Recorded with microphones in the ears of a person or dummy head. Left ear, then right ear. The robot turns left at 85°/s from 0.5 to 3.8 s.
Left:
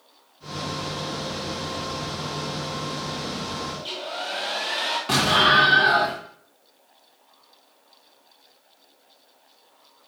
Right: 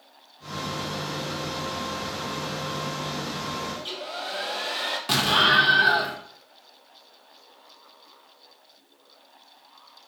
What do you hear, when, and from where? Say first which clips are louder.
3.8 s a hair dryer: left 2 dB; 5° right (ahead or behind), 0.6 m; by 5.0 s 10° right (ahead or behind), 0.6 m
5.1 s an explosion: left 2 dB; 20° right (ahead or behind), 0.8 m